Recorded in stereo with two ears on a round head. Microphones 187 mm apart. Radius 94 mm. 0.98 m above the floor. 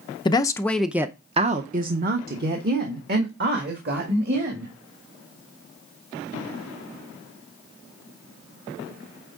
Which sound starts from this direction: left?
A woman speaking, at 0.2 s.